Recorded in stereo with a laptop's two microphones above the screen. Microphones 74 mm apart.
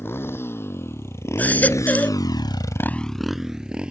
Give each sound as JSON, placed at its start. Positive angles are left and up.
{"t": 0.0, "sound": "a motorcycle", "side_deg": 35}
{"t": 1.4, "sound": "a baby crying", "side_deg": 20}